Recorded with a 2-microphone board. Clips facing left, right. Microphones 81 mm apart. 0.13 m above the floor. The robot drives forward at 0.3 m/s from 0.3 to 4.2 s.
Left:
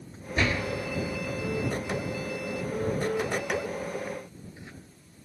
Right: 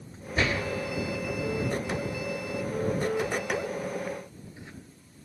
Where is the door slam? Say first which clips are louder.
Even; 10° right (ahead or behind), 1.6 m; by 0.6 s 15° right (ahead or behind), 1.5 m.